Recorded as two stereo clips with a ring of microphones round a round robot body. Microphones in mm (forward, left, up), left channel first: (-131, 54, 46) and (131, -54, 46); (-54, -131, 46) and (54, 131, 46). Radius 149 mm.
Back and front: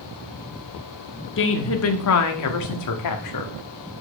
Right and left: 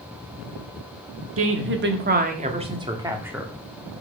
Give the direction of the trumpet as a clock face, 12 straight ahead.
I don't hear a trumpet.